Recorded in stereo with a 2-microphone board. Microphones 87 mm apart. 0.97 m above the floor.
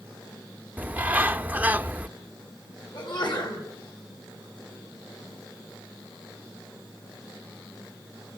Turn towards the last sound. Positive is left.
turn(degrees=60)  # may be behind; listen again after turning